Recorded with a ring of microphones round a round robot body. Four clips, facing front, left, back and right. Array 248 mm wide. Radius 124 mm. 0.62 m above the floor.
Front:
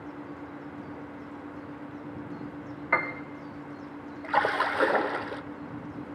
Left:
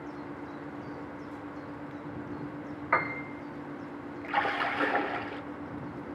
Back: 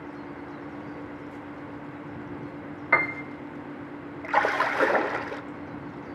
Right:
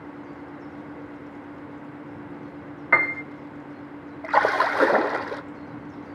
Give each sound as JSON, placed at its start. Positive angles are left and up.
{"t": 2.9, "sound": "a piano", "azimuth_deg": -110, "distance_m": 1.4}
{"t": 4.2, "sound": "a splash", "azimuth_deg": -95, "distance_m": 0.5}